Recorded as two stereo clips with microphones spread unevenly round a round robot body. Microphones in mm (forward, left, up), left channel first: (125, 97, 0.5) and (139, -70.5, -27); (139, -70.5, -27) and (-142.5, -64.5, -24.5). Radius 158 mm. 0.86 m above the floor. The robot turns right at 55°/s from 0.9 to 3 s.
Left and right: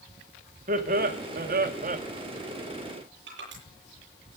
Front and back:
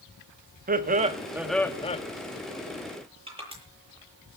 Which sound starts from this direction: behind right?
Laughter, at 0.7 s.